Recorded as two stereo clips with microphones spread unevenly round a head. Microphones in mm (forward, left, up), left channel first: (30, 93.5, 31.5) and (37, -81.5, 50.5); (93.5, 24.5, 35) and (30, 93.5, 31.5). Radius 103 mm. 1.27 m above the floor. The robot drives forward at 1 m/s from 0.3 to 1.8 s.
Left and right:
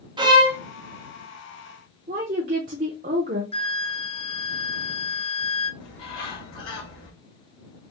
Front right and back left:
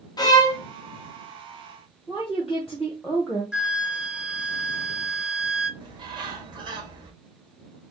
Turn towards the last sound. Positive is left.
turn(degrees=100)